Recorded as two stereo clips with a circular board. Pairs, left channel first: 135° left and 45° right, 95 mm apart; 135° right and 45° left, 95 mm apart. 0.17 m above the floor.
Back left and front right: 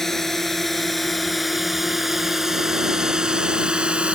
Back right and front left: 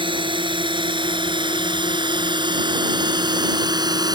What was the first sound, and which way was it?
A drone, 50° left.